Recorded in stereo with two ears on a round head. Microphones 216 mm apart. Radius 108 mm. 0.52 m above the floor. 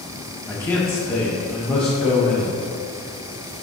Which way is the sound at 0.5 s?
10° left (ahead or behind).